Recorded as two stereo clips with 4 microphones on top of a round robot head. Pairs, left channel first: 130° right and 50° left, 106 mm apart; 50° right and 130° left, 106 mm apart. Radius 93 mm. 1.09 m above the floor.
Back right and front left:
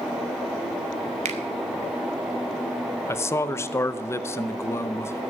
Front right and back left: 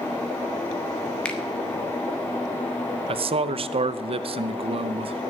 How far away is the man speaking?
About 0.7 m.